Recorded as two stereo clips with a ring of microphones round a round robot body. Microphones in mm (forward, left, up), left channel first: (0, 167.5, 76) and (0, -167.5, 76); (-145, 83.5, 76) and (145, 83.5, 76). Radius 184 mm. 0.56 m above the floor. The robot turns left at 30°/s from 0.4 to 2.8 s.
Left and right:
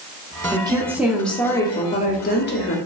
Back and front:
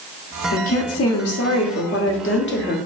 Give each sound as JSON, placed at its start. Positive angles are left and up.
{"t": 0.5, "sound": "a woman speaking", "azimuth_deg": -160, "distance_m": 1.0}